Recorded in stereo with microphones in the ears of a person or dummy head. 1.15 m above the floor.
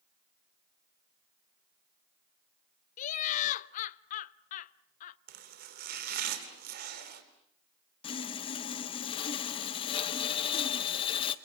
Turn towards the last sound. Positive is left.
turn(degrees=35)  # may be behind; listen again after turning